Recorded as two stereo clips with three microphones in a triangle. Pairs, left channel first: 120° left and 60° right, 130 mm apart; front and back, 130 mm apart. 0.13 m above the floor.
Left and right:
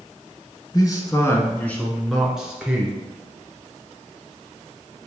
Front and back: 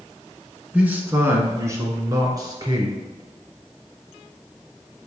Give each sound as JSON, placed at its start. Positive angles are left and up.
{"t": 0.7, "sound": "a man speaking", "azimuth_deg": 110, "distance_m": 1.3}